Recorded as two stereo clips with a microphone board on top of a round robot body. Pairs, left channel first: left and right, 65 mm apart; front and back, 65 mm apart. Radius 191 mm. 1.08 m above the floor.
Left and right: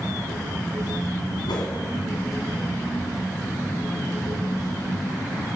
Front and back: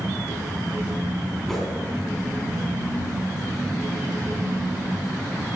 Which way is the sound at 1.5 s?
85° left.